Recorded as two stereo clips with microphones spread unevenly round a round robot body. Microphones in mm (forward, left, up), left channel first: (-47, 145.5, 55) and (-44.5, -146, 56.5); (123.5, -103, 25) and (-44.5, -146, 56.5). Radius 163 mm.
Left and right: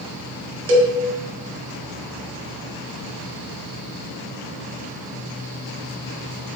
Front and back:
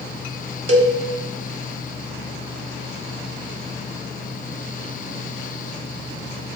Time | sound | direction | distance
0.7 | a cowbell | 110° right | 0.7 m